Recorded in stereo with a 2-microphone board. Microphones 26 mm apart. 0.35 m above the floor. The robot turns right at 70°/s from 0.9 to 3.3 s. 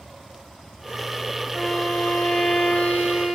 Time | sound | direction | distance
1.5 | a violin | 5° right | 4 m